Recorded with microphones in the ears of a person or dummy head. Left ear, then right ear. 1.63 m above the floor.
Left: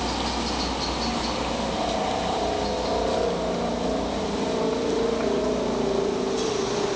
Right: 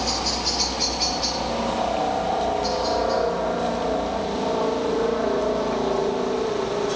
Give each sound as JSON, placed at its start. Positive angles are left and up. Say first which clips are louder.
{"t": 0.0, "sound": "a helicopter", "louder": "right 3 dB", "side_deg": -65}